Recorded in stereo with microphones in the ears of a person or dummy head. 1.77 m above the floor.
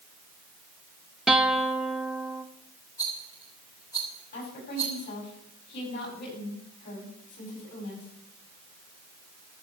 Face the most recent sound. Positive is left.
turn(degrees=65)  # may be behind; listen again after turning